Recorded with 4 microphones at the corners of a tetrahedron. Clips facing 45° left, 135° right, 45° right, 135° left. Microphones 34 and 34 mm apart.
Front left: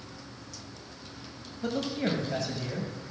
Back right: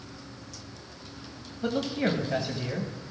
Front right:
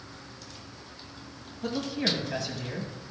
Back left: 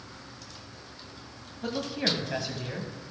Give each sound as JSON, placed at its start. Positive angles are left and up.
{"t": 1.6, "sound": "a man speaking", "azimuth_deg": -160, "distance_m": 1.0}